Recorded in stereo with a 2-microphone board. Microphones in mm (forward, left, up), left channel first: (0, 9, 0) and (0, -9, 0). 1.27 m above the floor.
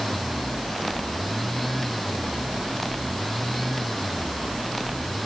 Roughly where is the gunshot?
I don't hear a gunshot.